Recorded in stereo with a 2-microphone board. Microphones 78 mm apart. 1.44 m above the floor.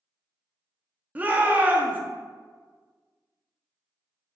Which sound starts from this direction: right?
A shout, at 1.1 s.